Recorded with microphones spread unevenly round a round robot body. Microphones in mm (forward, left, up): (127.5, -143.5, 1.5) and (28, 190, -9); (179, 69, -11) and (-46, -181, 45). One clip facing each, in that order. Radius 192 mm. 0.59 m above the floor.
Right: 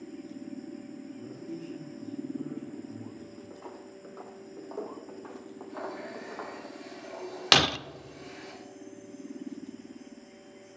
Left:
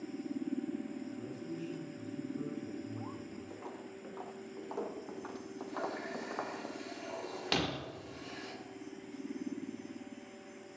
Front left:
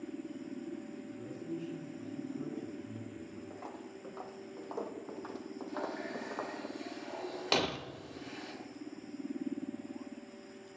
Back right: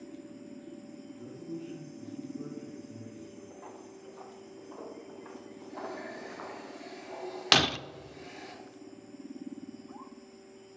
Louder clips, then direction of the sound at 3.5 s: Right 1 dB, front left 1 dB; 15° left.